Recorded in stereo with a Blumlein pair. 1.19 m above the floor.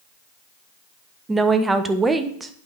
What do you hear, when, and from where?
1.3 s a woman speaking: 10° right, 0.7 m